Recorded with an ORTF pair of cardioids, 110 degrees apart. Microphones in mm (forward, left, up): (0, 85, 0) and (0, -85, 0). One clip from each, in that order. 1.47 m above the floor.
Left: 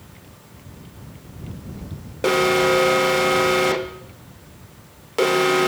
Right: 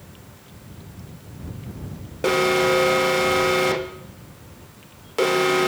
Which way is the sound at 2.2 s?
10° left.